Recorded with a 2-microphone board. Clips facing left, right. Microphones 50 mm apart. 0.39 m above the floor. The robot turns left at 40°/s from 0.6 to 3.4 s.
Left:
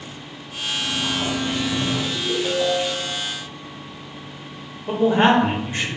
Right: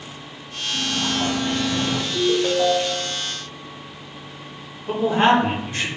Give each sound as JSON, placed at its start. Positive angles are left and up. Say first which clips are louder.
{"t": 0.7, "sound": "a sliding door", "louder": "right 1 dB", "azimuth_deg": -95, "distance_m": 0.8}
{"t": 2.1, "sound": "a ringtone", "louder": "right 8 dB", "azimuth_deg": -65, "distance_m": 0.7}
{"t": 4.9, "sound": "a man speaking", "louder": "left 1 dB", "side_deg": 25, "distance_m": 0.8}